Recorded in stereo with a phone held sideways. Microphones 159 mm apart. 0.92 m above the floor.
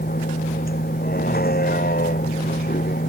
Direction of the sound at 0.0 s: 75° left (ahead or behind).